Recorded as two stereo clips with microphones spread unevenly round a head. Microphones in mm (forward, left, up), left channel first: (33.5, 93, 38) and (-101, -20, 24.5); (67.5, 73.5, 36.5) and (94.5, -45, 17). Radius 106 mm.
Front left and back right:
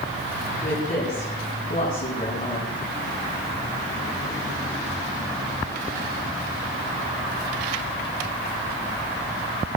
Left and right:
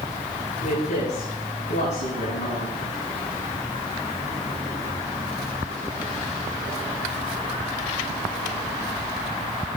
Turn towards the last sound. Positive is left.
turn(degrees=90)